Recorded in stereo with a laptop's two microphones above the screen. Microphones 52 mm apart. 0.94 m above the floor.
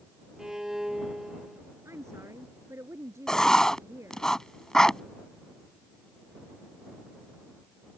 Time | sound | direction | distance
0.4 | a violin | 10° right (ahead or behind) | ?
1.9 | a woman speaking | 70° right (ahead or behind) | ?
3.3 | writing | 10° left (ahead or behind) | ?